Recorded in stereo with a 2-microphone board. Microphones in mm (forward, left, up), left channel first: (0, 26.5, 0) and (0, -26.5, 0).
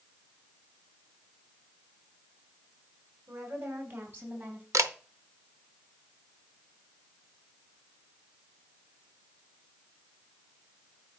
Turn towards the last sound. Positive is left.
turn(degrees=-75)  # may be behind; listen again after turning